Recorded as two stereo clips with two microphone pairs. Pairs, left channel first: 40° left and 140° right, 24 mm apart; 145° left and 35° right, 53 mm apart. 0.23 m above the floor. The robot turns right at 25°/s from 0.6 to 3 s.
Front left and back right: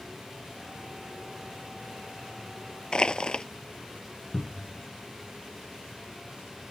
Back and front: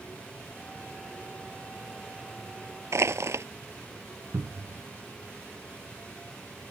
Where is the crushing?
10° right.